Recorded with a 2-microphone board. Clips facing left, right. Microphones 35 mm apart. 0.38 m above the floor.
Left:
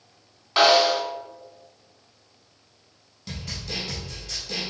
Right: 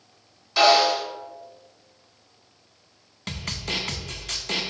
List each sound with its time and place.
0.6 s a snare drum: 45° left (ahead or behind), 1.9 m
3.3 s a snare drum: 70° right (ahead or behind), 0.5 m